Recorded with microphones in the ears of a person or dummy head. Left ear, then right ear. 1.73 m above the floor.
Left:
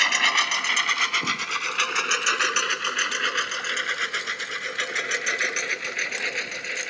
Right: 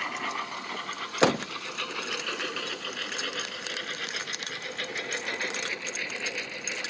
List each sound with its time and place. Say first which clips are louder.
0.0 s a lawn mower: left 12 dB; 65° left (ahead or behind); by 6.9 s 50° left (ahead or behind)